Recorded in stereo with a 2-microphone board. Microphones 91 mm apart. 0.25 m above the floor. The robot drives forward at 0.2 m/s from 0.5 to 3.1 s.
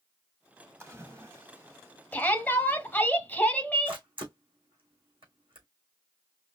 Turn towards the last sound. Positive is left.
turn(degrees=-65)  # may be behind; listen again after turning